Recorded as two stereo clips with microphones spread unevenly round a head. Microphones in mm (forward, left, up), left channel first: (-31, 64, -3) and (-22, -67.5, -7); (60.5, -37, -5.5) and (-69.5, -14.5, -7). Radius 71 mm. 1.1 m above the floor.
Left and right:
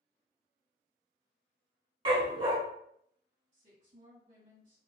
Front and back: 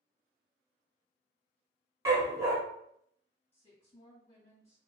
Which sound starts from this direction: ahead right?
A woman speaking, at 3.5 s.